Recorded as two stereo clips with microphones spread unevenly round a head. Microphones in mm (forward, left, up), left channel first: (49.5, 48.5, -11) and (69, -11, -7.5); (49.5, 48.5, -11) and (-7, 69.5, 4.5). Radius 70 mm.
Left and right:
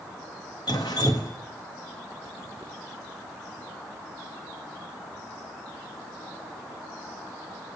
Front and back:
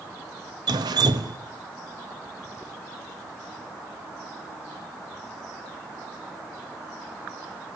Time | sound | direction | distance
0.7 | dripping | 170° left | 1.3 m